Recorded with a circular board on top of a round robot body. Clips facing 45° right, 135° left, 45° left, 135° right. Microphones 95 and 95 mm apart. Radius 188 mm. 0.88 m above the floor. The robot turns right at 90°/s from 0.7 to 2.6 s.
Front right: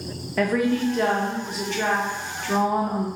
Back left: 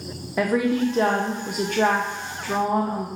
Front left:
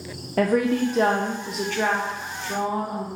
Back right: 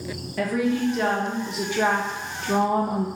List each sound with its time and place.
0.4 s a woman speaking: 60° left, 0.7 m; by 3.1 s 130° right, 0.7 m